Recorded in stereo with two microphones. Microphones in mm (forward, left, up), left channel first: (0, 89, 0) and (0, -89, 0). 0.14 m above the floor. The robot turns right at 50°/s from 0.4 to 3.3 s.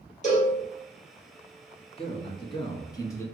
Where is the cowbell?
45° left (ahead or behind), 2.5 m; by 0.6 s 50° left (ahead or behind), 2.5 m.